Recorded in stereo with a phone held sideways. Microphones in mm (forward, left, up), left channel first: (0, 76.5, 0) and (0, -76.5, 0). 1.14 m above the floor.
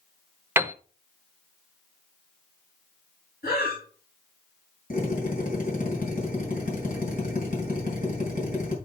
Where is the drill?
60° left (ahead or behind), 4.5 m.